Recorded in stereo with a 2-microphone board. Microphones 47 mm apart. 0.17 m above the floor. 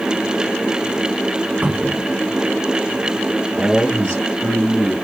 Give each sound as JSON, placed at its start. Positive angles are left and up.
{"t": 1.6, "sound": "a cupboard door", "side_deg": -30, "distance_m": 1.1}
{"t": 3.5, "sound": "a man speaking", "side_deg": 45, "distance_m": 1.8}